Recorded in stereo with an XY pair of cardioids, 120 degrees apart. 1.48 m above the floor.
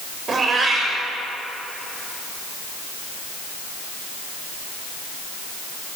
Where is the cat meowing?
35° right, 3 m.